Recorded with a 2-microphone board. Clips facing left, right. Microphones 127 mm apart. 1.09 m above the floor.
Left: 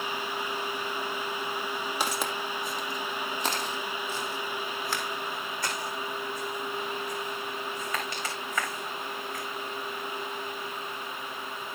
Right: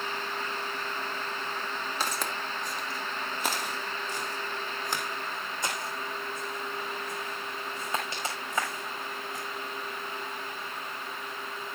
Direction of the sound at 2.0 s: 15° left (ahead or behind).